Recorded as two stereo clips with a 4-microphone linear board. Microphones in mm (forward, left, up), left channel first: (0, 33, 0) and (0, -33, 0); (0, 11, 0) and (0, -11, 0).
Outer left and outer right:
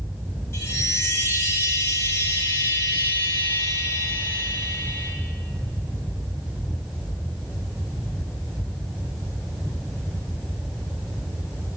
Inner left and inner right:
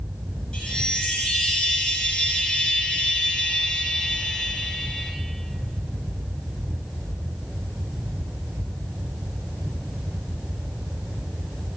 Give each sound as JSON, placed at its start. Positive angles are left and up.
{"t": 0.5, "sound": "a chime", "side_deg": 40, "distance_m": 3.0}